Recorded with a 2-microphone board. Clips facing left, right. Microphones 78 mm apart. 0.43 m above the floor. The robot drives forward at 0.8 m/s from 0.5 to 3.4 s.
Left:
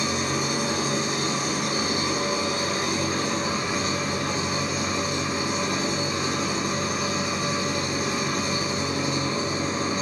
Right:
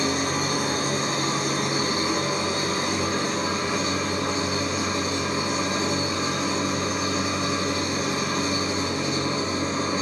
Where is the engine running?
50° right (ahead or behind), 3 m; by 10.0 s 30° right (ahead or behind), 4.5 m.